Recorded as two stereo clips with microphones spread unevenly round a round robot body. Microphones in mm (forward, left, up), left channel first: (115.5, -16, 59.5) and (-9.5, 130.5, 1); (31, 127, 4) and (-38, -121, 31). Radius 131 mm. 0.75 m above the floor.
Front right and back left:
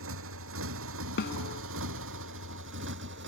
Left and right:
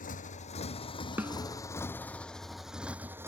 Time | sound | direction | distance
0.0 | a motorcycle | 135° left | ?
1.2 | a snare drum | 25° right | ?